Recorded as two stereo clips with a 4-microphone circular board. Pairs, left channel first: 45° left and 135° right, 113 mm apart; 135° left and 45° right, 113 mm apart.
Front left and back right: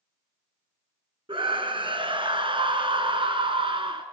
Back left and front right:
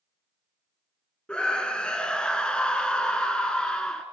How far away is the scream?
About 1.5 m.